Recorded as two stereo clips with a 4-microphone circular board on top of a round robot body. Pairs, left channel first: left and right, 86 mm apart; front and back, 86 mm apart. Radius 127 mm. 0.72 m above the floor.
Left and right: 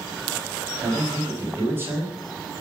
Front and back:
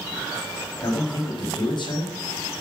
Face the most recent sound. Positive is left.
turn(degrees=-25)